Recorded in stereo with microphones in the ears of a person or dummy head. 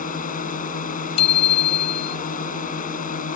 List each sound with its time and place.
0.0 s a drone: 40° left (ahead or behind)
1.2 s a bicycle bell: 35° left (ahead or behind)